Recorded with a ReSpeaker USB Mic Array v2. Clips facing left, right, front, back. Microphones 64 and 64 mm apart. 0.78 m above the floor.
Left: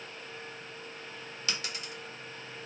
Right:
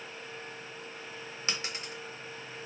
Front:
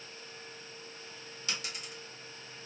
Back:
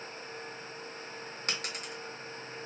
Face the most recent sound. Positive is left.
turn(degrees=-150)